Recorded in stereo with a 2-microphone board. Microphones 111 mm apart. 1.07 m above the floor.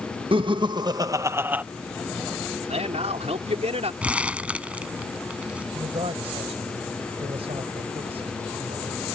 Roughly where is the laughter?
Right.